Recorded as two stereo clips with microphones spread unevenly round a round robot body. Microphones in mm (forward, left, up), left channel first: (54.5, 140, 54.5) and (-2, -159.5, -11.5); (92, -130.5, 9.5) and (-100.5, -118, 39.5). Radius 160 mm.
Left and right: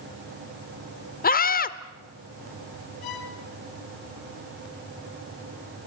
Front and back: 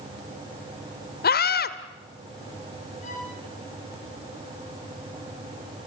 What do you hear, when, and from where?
1.2 s a scream: 15° left, 1.3 m
3.0 s a violin: 65° left, 2.5 m